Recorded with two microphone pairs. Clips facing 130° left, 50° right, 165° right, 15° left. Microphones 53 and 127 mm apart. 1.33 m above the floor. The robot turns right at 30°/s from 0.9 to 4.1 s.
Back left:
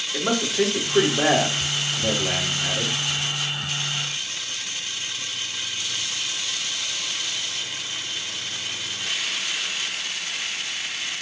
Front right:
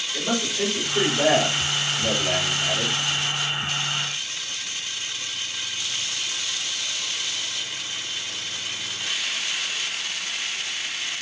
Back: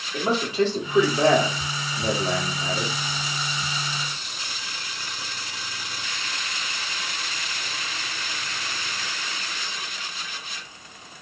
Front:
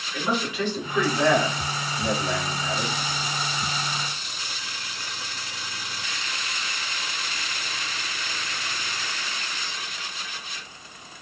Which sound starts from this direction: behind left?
A man speaking, at 0.1 s.